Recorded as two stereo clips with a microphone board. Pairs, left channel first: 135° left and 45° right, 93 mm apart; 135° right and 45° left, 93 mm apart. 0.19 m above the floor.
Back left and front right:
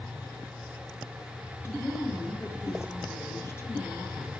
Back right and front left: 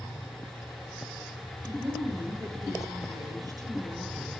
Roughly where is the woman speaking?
Left.